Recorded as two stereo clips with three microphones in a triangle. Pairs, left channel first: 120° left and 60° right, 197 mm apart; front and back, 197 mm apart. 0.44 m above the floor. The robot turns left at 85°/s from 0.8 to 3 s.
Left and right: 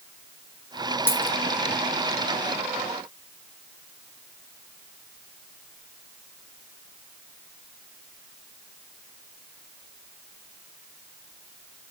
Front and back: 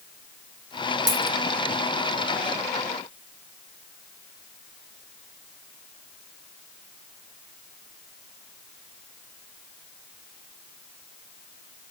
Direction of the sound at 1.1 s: 160° right.